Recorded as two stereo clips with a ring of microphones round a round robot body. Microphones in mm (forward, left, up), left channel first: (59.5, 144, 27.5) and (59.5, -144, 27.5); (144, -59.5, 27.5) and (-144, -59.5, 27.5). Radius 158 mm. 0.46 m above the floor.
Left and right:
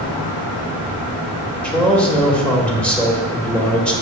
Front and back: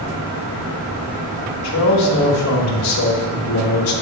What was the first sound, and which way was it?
A man speaking, 5° left.